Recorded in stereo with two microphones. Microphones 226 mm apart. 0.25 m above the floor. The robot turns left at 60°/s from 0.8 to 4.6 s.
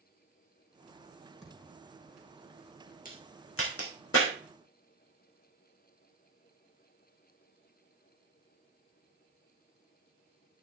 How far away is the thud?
About 6 m.